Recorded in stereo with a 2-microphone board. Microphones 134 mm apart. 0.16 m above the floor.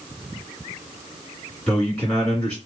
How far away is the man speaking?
About 1.9 m.